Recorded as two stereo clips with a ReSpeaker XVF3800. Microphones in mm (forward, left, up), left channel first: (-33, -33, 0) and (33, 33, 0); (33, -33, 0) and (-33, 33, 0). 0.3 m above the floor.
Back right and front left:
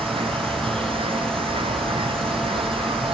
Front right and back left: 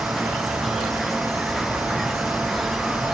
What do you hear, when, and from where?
0.0 s an insect: 45° left